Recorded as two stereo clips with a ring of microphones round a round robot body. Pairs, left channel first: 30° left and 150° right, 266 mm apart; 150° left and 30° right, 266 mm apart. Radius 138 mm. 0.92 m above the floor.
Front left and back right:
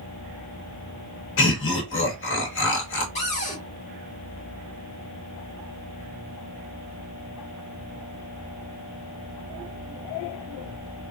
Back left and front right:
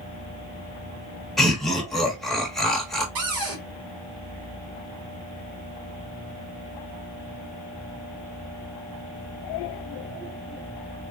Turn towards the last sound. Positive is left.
turn(degrees=-35)